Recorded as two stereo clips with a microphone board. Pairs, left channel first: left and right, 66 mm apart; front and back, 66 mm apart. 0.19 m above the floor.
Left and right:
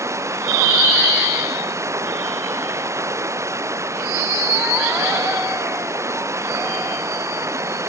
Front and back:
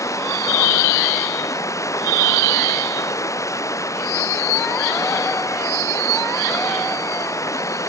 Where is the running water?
45° right.